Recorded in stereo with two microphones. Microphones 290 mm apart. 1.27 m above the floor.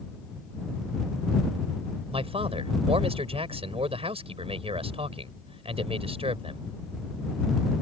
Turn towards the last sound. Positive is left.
turn(degrees=-20)  # may be behind; listen again after turning